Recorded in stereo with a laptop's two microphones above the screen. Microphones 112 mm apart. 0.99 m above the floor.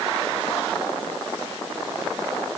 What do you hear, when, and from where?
Only background noise.